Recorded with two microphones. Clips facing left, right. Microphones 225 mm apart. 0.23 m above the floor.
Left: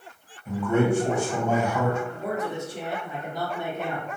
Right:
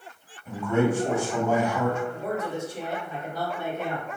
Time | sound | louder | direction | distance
0.5 | a man speaking | left 1 dB | centre (ahead or behind) | 1.1 m
2.1 | a man speaking | even | 15° left (ahead or behind) | 1.4 m